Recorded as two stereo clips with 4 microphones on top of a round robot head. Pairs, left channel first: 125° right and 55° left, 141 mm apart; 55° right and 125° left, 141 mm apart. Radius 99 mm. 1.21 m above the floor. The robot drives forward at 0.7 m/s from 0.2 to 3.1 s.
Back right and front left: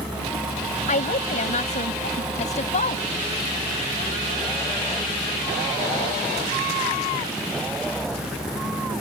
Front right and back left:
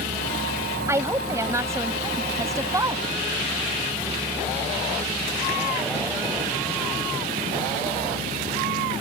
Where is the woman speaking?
165° right.